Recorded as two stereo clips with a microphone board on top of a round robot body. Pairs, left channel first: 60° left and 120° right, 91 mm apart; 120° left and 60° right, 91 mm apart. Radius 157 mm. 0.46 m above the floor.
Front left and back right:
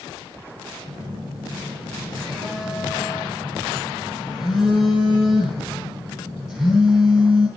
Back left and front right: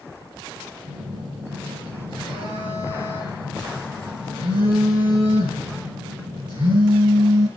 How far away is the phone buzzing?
About 10 m.